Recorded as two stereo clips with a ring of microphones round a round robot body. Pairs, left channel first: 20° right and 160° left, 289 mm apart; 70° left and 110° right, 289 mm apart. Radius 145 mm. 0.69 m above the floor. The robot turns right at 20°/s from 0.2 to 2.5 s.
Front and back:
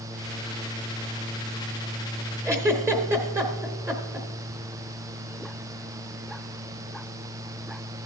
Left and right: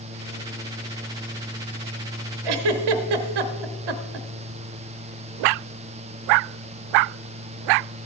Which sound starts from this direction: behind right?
A giggle, at 2.5 s.